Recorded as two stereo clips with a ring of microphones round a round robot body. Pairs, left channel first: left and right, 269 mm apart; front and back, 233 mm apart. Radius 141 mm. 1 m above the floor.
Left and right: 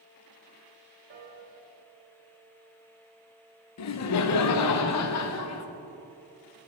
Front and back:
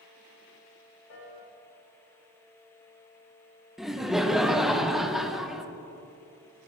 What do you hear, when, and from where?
1.1 s a piano: 40° right, 2 m
3.8 s laughter: 90° left, 0.5 m